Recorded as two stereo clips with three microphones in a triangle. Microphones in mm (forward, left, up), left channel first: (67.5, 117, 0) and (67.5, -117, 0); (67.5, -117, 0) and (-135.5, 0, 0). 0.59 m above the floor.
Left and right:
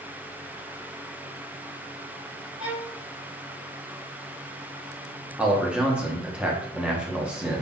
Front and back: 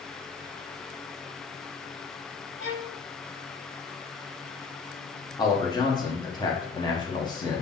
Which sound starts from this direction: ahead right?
A violin, at 2.6 s.